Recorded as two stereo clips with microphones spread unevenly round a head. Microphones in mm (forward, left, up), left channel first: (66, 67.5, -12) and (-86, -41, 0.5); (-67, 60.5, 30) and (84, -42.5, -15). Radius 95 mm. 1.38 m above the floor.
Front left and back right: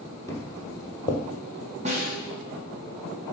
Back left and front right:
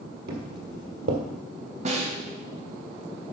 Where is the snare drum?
85° right, 1.3 m.